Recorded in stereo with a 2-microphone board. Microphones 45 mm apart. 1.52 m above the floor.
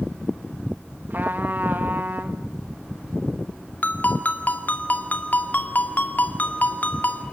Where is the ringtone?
40° left (ahead or behind), 2 m.